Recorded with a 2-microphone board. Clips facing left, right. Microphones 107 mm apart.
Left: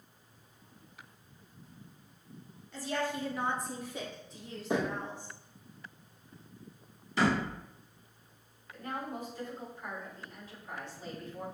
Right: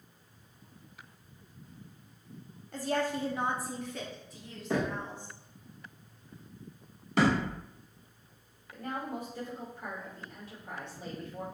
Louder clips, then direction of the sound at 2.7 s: Right 3 dB; 55° right (ahead or behind).